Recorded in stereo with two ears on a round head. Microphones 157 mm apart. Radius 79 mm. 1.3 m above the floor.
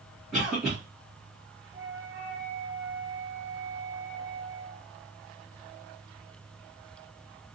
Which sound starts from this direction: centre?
A cough, at 0.3 s.